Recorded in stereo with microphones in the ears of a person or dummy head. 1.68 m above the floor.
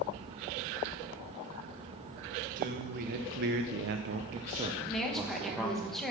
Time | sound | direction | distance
2.6 | a man speaking | 45° right (ahead or behind) | 1.4 m
4.9 | a woman speaking | centre (ahead or behind) | 2 m